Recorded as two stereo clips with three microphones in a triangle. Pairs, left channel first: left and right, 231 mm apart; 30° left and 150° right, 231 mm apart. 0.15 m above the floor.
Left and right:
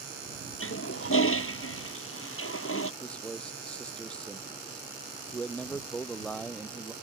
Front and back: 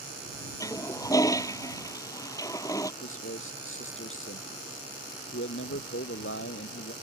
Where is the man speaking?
5° left.